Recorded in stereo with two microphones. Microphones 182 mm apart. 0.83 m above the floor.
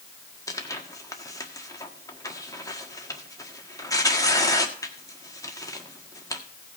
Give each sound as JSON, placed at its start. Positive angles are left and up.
{"t": 0.5, "sound": "tearing paper", "side_deg": 20, "distance_m": 1.5}